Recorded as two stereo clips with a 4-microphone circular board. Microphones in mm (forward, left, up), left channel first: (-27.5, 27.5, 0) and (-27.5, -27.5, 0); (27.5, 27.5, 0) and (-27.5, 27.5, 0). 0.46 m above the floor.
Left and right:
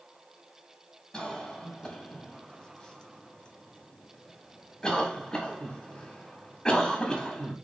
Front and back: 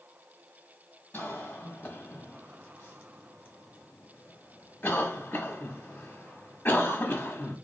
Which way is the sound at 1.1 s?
20° left.